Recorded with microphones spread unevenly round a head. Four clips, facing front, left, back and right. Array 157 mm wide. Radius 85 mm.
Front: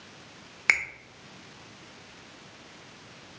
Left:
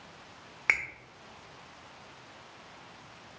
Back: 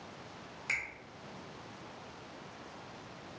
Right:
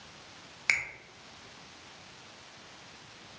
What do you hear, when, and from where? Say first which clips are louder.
0.7 s a finger snap: left 2 dB, front 12 dB; 25° left, 0.5 m